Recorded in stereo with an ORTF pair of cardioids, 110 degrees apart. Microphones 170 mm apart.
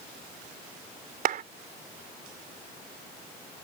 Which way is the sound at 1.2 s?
55° right.